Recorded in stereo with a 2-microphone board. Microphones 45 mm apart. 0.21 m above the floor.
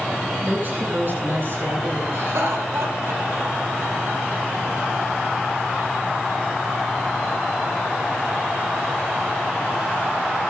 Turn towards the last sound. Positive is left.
turn(degrees=-75)  # may be behind; listen again after turning